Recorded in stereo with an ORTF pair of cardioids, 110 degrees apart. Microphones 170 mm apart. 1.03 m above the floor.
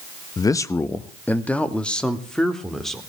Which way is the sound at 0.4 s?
25° left.